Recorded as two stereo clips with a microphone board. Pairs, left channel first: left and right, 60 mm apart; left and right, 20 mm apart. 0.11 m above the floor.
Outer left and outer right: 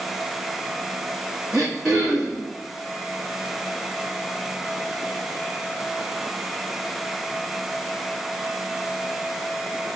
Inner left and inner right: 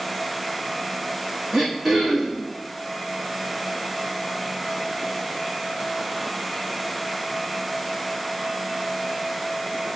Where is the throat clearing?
5° right (ahead or behind), 1.2 m.